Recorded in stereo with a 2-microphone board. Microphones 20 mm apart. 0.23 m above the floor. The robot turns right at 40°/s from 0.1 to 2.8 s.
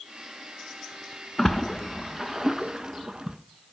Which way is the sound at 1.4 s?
25° left (ahead or behind).